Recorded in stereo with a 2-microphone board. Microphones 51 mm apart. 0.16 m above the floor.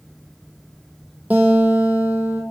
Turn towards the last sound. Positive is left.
turn(degrees=-30)  # may be behind; listen again after turning